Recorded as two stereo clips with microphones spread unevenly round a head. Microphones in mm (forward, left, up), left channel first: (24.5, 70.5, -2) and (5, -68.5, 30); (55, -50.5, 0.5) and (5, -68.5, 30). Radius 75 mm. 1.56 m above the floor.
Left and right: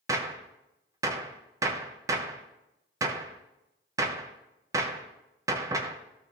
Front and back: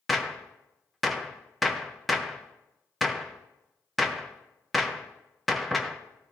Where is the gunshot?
120° right, 0.7 m.